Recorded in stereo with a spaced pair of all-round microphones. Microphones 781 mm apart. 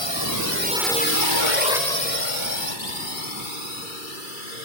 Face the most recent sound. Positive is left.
turn(degrees=85)